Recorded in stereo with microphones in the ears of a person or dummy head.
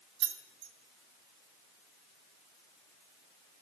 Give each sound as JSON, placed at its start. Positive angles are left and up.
{"t": 0.2, "sound": "keys jangling", "side_deg": -65, "distance_m": 0.9}